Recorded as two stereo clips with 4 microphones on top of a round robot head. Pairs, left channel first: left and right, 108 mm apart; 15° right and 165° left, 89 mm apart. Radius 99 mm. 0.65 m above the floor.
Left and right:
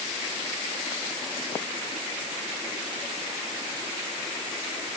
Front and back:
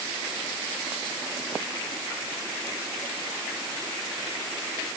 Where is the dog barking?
I don't hear a dog barking.